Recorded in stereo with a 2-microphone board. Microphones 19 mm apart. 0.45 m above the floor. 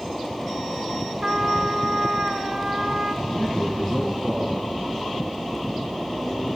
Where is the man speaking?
40° right (ahead or behind), 4.5 m.